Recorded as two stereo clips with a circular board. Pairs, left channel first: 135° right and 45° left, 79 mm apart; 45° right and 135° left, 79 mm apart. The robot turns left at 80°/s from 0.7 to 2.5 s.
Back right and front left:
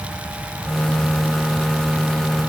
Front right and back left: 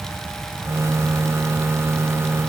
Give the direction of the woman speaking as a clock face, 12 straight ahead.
No woman speaking in this recording.